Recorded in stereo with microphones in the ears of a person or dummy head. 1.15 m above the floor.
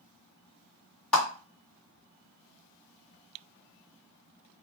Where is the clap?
15° left (ahead or behind), 2 m.